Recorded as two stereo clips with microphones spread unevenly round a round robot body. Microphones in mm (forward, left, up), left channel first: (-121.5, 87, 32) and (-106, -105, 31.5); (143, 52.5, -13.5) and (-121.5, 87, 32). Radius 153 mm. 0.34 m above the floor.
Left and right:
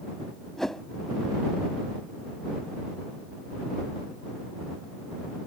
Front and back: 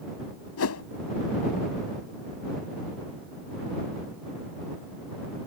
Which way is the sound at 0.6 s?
5° left.